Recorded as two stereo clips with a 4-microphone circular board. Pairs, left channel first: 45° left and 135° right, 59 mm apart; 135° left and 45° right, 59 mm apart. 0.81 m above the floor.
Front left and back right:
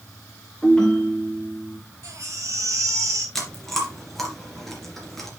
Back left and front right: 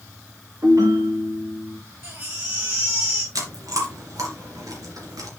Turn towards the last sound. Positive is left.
turn(degrees=-40)